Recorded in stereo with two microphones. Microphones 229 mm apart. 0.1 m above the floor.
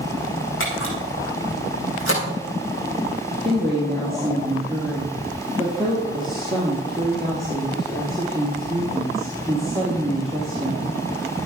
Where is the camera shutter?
60° left (ahead or behind), 4.5 m.